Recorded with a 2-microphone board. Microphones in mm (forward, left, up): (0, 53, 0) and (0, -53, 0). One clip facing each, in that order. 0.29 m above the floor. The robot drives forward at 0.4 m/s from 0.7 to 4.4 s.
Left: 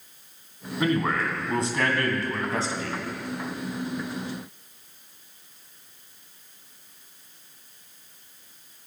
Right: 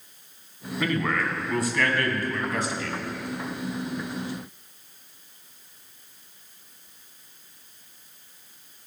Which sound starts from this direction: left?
A man speaking, at 0.8 s.